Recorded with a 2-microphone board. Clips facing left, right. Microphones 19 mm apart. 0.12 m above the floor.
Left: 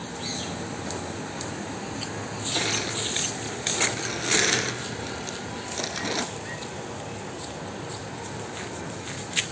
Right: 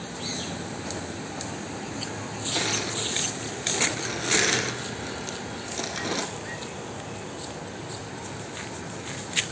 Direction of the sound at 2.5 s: 10° left (ahead or behind).